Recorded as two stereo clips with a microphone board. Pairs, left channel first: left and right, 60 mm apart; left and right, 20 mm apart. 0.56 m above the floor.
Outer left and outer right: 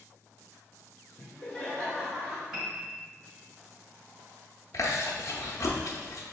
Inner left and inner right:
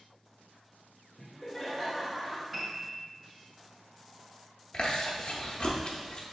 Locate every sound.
1.2 s laughter: 30° left (ahead or behind), 1.4 m; by 2.4 s 15° right (ahead or behind), 1.3 m
2.5 s a piano: 10° right (ahead or behind), 1.5 m
4.7 s chewing: 60° left (ahead or behind), 0.7 m